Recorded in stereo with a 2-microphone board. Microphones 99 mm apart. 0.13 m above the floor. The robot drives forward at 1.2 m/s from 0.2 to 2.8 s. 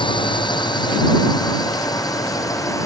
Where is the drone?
55° left (ahead or behind); by 2.9 s 35° left (ahead or behind).